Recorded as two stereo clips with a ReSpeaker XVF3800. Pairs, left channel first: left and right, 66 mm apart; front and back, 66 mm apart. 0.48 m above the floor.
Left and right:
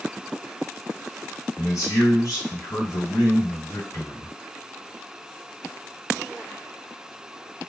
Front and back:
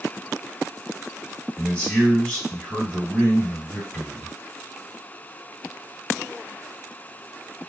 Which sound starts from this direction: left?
A man speaking, at 1.6 s.